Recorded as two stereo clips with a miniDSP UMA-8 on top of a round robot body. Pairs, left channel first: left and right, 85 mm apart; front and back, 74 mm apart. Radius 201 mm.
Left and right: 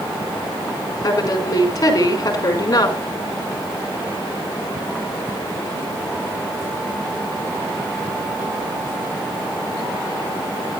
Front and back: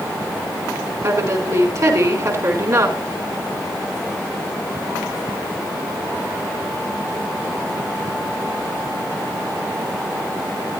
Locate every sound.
1.0 s a woman speaking: 135° left, 4 m